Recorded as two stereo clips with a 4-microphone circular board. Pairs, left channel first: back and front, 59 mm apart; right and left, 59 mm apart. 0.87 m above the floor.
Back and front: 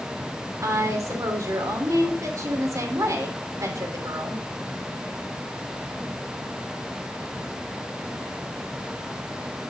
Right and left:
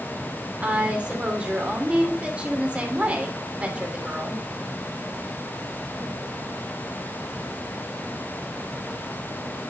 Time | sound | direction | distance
0.6 | a woman speaking | 25° left | 2.5 m